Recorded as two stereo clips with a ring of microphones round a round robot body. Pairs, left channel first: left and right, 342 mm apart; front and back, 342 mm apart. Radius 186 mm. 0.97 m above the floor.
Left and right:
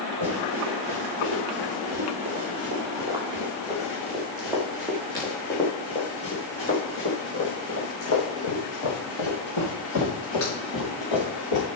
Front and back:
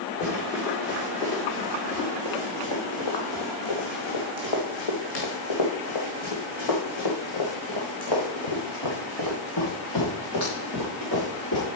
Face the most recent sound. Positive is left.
turn(degrees=55)